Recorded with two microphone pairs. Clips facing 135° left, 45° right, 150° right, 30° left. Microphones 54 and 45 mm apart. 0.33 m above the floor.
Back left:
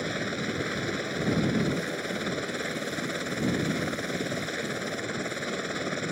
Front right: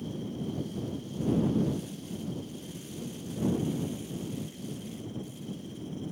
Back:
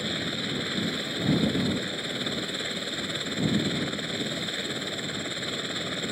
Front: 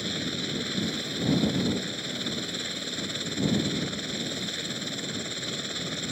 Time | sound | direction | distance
0.0 | a helicopter | 140° left | ?